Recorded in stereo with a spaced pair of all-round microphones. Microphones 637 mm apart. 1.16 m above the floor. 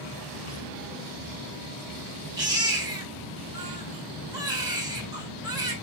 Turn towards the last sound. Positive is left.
turn(degrees=-5)  # may be behind; listen again after turning